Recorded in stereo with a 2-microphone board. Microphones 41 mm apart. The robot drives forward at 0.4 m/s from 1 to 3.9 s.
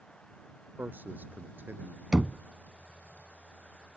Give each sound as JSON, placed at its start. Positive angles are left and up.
{"t": 0.8, "sound": "a man speaking", "side_deg": -45}
{"t": 2.1, "sound": "knocking", "side_deg": -20}